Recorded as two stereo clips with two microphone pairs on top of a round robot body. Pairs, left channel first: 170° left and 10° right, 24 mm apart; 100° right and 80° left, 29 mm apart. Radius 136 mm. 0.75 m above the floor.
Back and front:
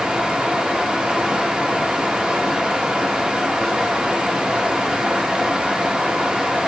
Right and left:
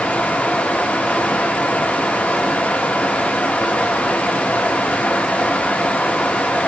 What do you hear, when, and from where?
0.0 s running water: 75° right, 0.8 m